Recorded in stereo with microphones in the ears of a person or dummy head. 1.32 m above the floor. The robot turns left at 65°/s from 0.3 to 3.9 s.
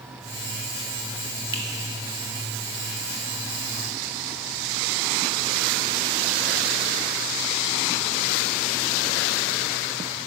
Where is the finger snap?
25° right (ahead or behind), 0.8 m; by 1.6 s 30° right (ahead or behind), 0.8 m.